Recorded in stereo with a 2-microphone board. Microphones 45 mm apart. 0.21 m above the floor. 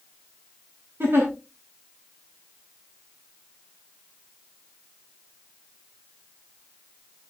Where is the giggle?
50° right (ahead or behind), 7.5 m.